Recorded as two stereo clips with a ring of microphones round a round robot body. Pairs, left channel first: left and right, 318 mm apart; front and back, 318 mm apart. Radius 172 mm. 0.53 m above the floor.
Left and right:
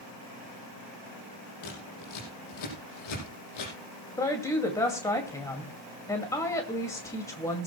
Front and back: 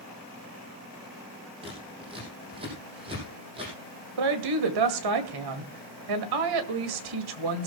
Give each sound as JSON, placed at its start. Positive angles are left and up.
{"t": 1.6, "sound": "scissors", "azimuth_deg": 105, "distance_m": 5.5}
{"t": 4.2, "sound": "a woman speaking", "azimuth_deg": 170, "distance_m": 2.0}